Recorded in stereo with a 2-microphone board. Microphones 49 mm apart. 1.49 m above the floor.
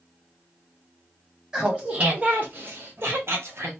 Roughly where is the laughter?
Centre.